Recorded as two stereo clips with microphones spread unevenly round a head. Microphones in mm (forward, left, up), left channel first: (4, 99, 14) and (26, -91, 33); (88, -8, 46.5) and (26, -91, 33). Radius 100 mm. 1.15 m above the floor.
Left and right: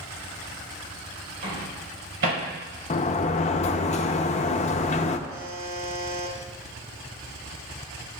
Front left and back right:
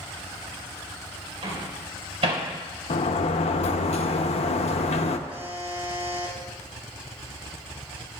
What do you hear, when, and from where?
1.4 s a microwave: 115° right, 4.5 m
2.9 s a sliding door: 45° left, 0.6 m
5.3 s a buzzer: 135° right, 5 m